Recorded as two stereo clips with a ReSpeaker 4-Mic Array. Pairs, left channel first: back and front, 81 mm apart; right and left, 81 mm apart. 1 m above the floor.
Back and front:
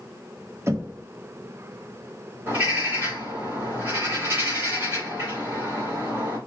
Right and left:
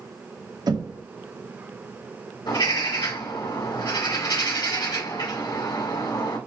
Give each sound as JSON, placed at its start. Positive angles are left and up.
{"t": 0.7, "sound": "knocking", "azimuth_deg": 55, "distance_m": 0.8}
{"t": 2.5, "sound": "a bird", "azimuth_deg": -60, "distance_m": 2.5}